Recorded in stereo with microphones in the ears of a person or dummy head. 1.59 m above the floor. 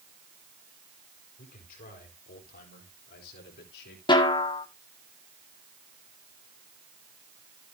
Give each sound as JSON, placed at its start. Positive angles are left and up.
{"t": 1.4, "sound": "a man speaking", "side_deg": 55, "distance_m": 5.0}
{"t": 4.1, "sound": "a snare drum", "side_deg": 25, "distance_m": 1.7}